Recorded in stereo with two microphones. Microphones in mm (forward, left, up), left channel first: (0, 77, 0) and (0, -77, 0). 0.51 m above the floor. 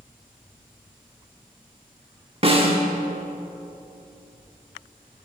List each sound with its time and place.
2.4 s a snare drum: 40° right (ahead or behind), 1.1 m